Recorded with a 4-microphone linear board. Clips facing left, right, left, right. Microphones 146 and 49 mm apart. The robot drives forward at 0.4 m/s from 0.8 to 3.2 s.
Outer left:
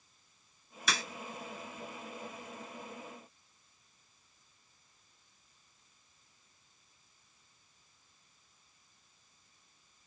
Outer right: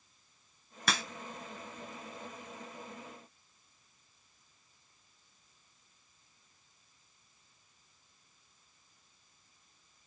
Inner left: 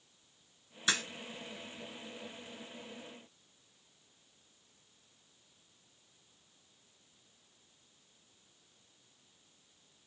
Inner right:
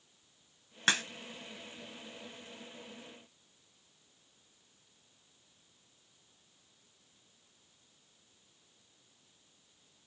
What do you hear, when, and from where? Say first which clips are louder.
0.9 s a crack: outer right 2 dB, inner right 3 dB; 65° right (ahead or behind), 2 m; by 1.0 s 60° right (ahead or behind), 2 m